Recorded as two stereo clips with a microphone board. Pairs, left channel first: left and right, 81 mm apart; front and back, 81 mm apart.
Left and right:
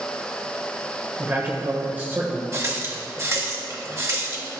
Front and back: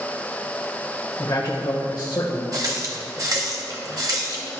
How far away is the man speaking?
About 1.2 m.